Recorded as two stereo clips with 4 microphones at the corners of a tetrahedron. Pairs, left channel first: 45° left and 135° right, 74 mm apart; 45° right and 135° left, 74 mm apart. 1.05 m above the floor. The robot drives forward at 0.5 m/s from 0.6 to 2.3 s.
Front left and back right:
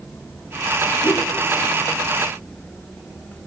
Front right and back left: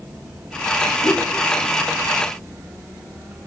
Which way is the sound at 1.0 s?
5° right.